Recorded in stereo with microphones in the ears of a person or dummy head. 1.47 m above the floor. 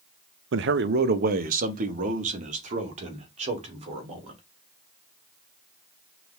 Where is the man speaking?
65° right (ahead or behind), 0.5 m; by 4.4 s 45° right (ahead or behind), 3 m.